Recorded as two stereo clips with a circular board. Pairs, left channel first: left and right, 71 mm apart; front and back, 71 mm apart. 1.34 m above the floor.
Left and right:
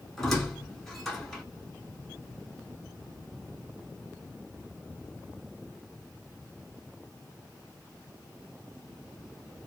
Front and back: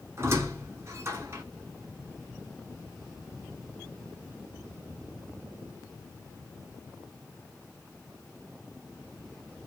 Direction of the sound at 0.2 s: 175° left.